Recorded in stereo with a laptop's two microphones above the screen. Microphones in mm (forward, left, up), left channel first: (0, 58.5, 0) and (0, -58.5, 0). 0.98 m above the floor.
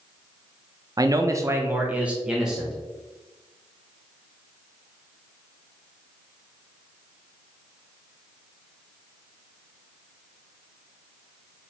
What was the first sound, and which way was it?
A man speaking, 30° right (ahead or behind).